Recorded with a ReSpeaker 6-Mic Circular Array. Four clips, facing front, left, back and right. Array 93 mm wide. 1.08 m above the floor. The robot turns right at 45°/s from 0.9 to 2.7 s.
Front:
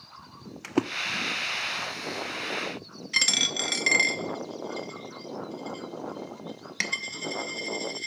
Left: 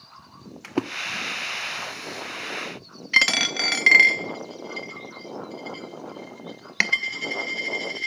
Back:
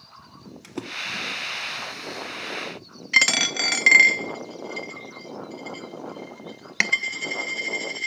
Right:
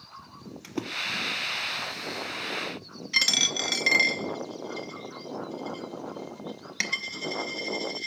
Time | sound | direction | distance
0.6 | a splash | 40° left | 0.5 m
3.1 | a dropped coin | 135° left | 0.6 m